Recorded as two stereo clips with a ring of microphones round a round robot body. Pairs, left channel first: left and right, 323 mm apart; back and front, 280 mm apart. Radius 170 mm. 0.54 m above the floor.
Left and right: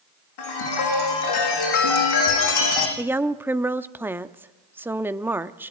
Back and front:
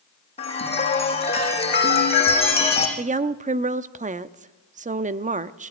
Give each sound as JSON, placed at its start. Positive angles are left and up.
{"t": 0.4, "sound": "a chime", "azimuth_deg": 110, "distance_m": 5.5}
{"t": 3.0, "sound": "a woman speaking", "azimuth_deg": -15, "distance_m": 0.6}